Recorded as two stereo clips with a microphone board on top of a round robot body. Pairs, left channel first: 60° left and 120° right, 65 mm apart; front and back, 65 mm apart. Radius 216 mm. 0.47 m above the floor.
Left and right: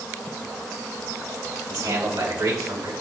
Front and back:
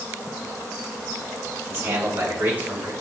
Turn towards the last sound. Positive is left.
turn(degrees=-115)